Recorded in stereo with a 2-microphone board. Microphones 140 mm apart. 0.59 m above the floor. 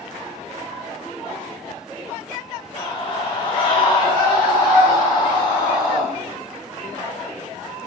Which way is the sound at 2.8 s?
30° left (ahead or behind).